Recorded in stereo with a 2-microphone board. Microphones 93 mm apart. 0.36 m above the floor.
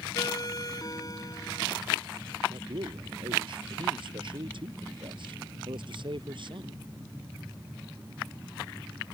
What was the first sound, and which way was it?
A ringtone, 40° left (ahead or behind).